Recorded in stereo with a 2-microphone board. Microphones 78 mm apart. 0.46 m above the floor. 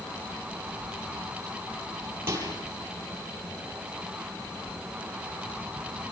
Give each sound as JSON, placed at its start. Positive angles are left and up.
{"t": 2.3, "sound": "a microwave", "side_deg": -30, "distance_m": 9.0}